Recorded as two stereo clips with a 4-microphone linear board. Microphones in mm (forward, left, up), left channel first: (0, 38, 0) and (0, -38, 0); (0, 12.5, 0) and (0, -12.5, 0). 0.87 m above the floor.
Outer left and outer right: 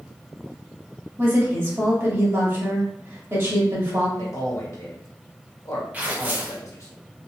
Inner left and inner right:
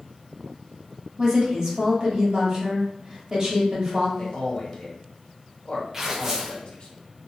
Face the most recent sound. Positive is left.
turn(degrees=-20)  # may be behind; listen again after turning